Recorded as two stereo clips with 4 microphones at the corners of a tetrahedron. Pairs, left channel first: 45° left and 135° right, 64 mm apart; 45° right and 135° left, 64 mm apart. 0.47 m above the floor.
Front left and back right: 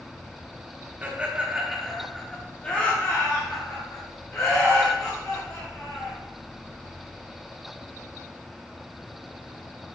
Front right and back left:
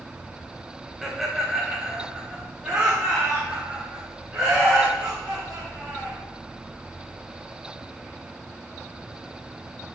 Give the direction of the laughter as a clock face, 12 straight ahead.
5 o'clock.